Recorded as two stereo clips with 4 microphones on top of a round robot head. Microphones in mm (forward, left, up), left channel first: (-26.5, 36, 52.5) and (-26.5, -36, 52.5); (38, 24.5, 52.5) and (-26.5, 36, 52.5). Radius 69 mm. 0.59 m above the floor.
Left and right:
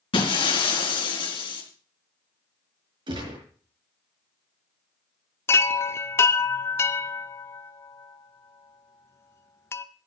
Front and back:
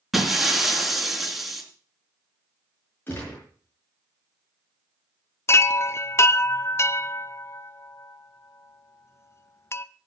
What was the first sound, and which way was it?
Breaking glass, 80° left.